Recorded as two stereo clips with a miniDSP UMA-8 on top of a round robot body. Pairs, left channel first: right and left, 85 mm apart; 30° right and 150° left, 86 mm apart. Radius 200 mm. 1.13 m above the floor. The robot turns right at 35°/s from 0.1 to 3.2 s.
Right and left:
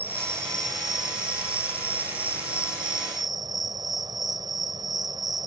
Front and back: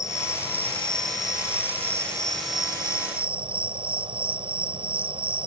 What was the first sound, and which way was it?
An insect, 25° left.